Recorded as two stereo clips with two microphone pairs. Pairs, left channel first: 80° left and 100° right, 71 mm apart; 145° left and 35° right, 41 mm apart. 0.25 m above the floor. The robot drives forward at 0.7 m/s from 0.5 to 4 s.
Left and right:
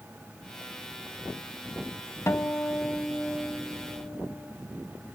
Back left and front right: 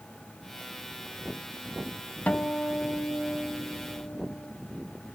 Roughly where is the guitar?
Left.